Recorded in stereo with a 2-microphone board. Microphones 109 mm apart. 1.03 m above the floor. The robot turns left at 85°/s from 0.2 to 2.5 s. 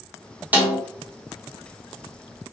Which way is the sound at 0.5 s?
15° right (ahead or behind).